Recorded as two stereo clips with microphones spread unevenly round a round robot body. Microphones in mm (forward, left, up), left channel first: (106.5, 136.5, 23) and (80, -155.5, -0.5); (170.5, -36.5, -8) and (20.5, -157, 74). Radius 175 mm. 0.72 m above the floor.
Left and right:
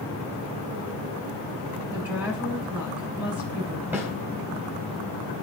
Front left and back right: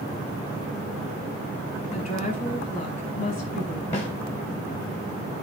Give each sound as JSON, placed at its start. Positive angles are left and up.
{"t": 1.9, "sound": "a woman speaking", "azimuth_deg": -10, "distance_m": 5.0}
{"t": 3.9, "sound": "a snare drum", "azimuth_deg": -10, "distance_m": 4.0}